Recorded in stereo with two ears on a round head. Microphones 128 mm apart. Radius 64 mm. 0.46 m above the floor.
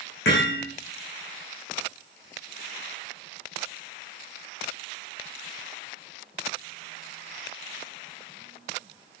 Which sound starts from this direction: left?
Hammering, at 0.2 s.